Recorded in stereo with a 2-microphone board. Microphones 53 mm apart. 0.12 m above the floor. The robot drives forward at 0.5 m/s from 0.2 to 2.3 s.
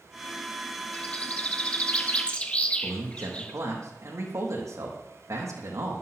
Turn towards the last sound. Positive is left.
turn(degrees=-70)  # may be behind; listen again after turning